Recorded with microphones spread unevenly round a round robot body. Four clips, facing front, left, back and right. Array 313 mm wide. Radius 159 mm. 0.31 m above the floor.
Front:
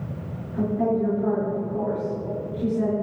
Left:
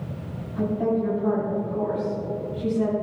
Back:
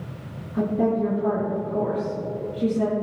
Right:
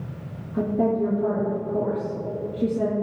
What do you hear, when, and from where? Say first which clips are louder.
0.5 s a woman speaking: right 2 dB, back 1 dB; 115° right, 4.5 m